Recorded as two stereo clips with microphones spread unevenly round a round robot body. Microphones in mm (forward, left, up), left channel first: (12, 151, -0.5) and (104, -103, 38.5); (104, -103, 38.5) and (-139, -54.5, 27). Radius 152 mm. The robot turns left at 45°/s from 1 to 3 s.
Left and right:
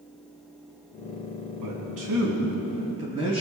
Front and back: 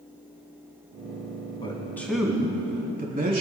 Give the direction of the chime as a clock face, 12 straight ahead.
I don't hear a chime.